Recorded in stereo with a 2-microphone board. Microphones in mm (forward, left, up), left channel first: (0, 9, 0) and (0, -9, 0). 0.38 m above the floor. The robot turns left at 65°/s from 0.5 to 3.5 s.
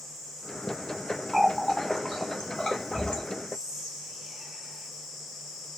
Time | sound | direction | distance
1.3 | a running tap | 15° right (ahead or behind) | 1.4 m
3.5 | whispering | 50° right (ahead or behind) | 1.9 m